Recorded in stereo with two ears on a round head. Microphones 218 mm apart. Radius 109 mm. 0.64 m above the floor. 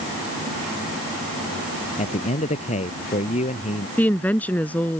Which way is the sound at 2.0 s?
30° left (ahead or behind).